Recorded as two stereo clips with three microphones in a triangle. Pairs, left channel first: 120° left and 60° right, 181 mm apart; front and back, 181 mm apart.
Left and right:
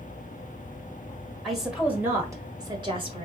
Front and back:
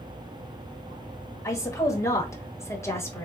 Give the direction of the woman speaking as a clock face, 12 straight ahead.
11 o'clock.